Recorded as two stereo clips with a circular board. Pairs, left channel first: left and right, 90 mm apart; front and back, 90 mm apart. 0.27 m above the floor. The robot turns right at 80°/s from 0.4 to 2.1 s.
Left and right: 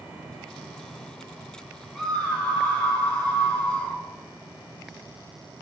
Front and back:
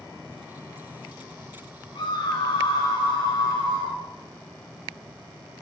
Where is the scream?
Straight ahead, 2.5 m; by 4.0 s 15° left, 2.5 m.